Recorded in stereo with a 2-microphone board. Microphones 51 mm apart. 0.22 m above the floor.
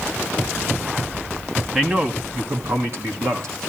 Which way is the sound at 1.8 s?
15° right (ahead or behind).